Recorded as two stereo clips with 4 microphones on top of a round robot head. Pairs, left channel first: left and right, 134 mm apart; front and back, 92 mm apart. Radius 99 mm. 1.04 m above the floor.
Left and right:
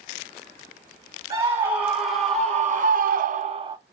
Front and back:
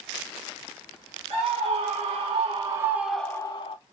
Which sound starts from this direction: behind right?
A scream, at 1.3 s.